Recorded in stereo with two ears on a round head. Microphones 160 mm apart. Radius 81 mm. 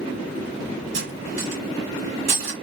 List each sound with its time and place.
0.9 s cutlery clinking: 70° right (ahead or behind), 2.5 m